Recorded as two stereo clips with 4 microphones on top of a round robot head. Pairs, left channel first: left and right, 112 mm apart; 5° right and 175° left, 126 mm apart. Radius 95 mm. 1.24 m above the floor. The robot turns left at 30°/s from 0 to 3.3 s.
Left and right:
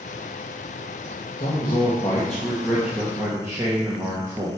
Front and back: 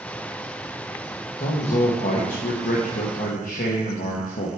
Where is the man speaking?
40° left, 1.1 m; by 4.5 s 20° right, 1.1 m.